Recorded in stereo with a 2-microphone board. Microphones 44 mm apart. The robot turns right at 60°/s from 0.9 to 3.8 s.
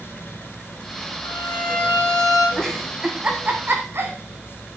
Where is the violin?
105° left, 5 m; by 2.5 s straight behind, 5 m.